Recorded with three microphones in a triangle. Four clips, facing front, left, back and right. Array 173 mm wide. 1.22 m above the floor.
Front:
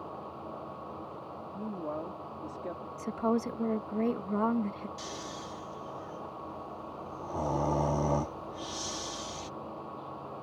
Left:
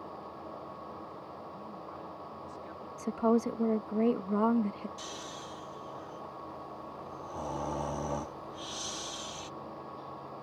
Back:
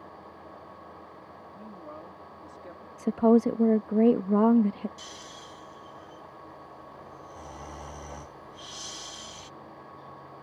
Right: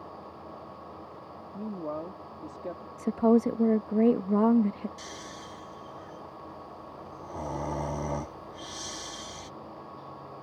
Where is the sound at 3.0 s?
155° right.